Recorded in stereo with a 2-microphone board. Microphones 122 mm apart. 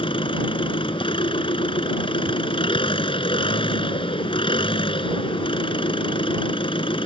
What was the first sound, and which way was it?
An engine running, 50° left (ahead or behind).